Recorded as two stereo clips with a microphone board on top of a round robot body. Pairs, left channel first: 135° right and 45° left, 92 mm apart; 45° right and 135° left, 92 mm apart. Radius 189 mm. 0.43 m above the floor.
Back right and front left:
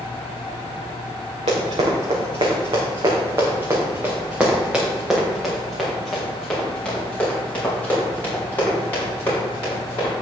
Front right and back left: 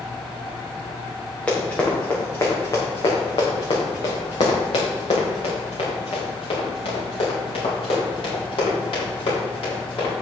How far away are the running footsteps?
About 3.5 m.